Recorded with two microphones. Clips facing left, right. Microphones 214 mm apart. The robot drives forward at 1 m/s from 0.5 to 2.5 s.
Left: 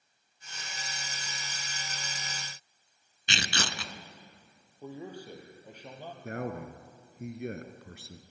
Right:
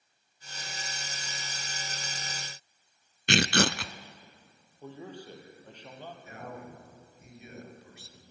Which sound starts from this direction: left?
A man speaking, at 6.2 s.